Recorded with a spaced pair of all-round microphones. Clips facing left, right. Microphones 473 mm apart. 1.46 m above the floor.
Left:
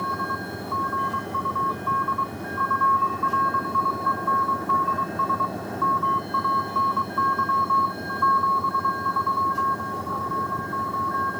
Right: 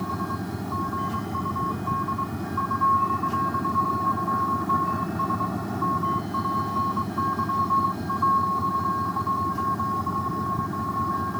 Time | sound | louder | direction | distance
0.0 | a vehicle | right 2 dB | 25° right (ahead or behind) | ?